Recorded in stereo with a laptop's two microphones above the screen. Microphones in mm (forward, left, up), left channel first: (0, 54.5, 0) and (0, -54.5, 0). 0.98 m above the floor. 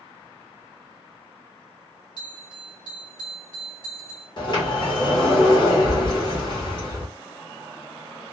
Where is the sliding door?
45° left (ahead or behind), 1.0 m.